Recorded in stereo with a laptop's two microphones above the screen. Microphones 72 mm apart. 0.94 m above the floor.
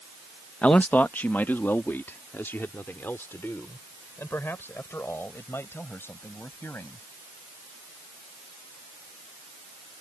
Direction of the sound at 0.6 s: 20° left (ahead or behind).